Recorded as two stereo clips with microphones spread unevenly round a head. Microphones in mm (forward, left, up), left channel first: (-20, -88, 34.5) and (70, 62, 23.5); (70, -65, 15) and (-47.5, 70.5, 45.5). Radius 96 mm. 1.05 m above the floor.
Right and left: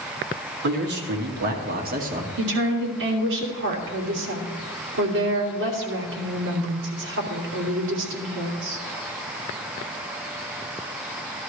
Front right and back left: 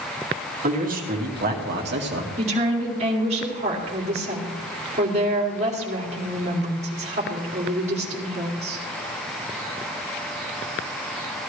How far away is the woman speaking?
About 2.5 m.